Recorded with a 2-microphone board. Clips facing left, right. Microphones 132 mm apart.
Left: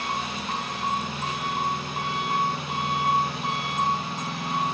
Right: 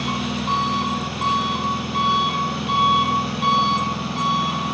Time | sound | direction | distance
0.0 | an engine running | 75° right (ahead or behind) | 1.1 m